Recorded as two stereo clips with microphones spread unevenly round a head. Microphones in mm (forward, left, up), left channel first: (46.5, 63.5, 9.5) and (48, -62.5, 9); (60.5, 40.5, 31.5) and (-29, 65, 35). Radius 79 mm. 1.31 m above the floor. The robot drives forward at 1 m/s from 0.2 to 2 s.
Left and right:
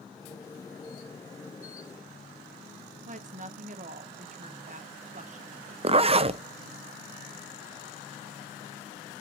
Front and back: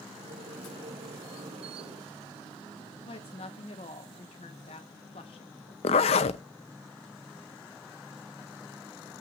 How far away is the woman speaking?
About 1.1 m.